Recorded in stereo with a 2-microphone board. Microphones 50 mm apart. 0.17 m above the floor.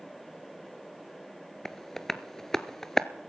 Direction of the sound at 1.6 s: 10° left (ahead or behind).